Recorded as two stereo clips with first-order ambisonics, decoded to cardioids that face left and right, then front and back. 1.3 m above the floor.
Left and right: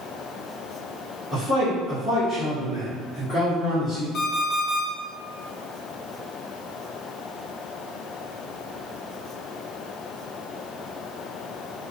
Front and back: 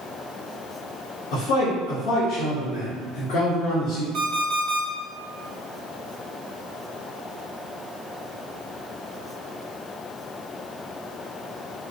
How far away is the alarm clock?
About 1.3 m.